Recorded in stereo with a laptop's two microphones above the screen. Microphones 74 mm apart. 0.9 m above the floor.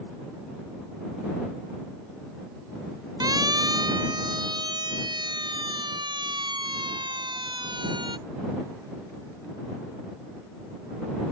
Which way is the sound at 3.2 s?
60° right (ahead or behind).